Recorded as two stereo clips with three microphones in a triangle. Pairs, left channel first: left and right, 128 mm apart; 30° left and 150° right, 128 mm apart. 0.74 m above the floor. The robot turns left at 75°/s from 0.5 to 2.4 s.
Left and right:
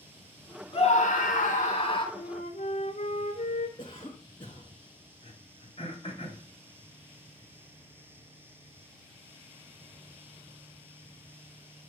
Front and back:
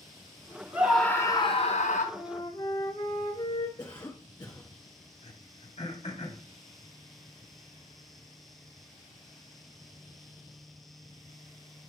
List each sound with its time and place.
0.7 s a scream: 135° left, 2 m; by 2.0 s 35° left, 2 m
2.1 s a flute: 100° left, 1.8 m; by 3.7 s 85° left, 1.8 m
3.8 s a cough: 70° left, 1.3 m
5.2 s throat clearing: 55° left, 2 m